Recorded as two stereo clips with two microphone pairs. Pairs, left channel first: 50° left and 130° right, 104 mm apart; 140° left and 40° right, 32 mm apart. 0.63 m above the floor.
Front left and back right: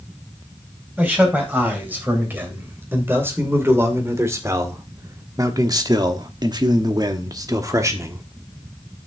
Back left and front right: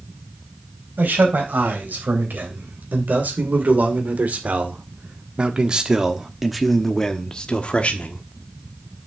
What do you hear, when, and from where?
1.0 s a man speaking: 60° right, 3.5 m; by 8.2 s 170° left, 1.3 m